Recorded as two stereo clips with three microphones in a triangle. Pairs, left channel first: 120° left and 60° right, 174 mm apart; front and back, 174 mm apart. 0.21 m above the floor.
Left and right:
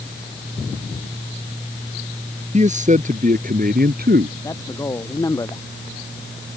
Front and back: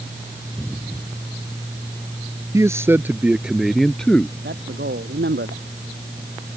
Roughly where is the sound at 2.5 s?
Right.